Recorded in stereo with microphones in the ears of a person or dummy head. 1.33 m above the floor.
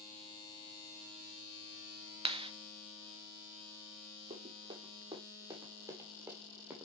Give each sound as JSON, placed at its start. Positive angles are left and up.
{"t": 2.2, "sound": "a clap", "side_deg": -25, "distance_m": 0.5}
{"t": 4.3, "sound": "running footsteps", "side_deg": -30, "distance_m": 3.0}